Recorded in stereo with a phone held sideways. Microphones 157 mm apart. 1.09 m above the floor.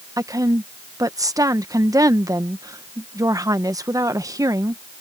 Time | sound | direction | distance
0.2 | a woman speaking | 20° right (ahead or behind) | ?